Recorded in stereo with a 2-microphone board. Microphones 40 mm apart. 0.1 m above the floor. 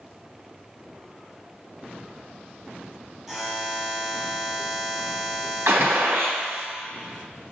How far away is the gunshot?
About 3.5 m.